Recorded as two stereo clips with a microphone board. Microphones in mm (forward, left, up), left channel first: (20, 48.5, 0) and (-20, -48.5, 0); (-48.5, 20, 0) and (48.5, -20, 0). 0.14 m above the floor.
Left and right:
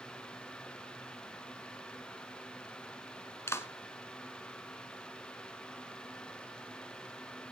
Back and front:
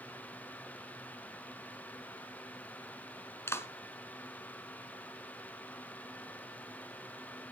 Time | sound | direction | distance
3.5 | a clap | 110° left | 1.1 m